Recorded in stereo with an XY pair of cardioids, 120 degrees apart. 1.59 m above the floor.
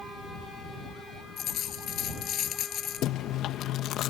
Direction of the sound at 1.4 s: 55° left.